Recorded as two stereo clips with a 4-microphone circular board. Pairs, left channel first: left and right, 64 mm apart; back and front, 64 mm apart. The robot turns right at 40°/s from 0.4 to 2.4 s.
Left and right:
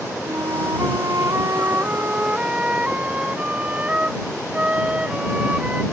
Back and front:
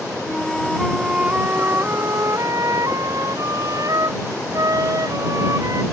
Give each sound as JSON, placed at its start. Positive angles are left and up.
{"t": 0.2, "sound": "a flute", "azimuth_deg": -100}